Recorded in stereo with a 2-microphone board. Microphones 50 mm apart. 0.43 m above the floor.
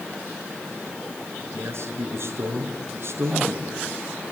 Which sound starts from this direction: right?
A man speaking, at 1.5 s.